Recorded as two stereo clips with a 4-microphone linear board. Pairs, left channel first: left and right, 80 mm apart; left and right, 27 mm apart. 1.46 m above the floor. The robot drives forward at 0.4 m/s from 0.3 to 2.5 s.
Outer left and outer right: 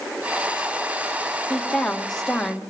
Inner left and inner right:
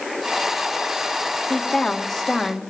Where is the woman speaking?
5° left (ahead or behind), 2 m.